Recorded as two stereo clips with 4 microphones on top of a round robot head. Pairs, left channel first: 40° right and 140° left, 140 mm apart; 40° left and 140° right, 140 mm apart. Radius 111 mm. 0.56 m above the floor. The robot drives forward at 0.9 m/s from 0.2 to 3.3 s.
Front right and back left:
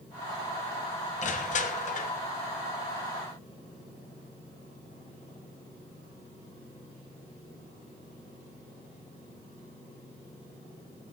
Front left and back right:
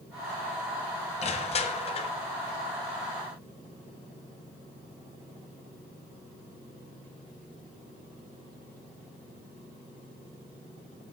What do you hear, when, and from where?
1.2 s crushing: 5° right, 1.4 m; by 2.1 s 10° right, 0.6 m